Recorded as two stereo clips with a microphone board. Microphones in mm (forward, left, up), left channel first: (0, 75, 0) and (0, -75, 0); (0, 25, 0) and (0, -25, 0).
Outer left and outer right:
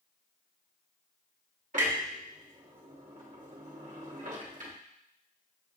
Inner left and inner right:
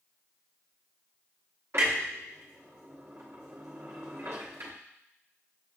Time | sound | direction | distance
1.7 | a clunk | 60° right (ahead or behind) | 1.0 m